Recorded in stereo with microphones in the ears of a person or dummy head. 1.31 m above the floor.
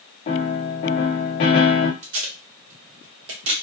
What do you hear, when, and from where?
0.3 s a piano: 30° left (ahead or behind), 0.5 m
2.0 s tape being pulled: 70° right (ahead or behind), 1.3 m